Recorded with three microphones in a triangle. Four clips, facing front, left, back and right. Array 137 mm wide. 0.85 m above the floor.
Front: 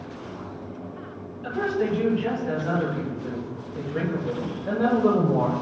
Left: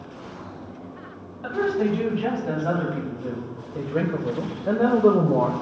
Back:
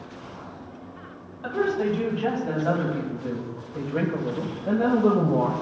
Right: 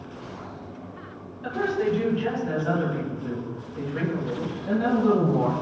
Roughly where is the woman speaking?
Behind left.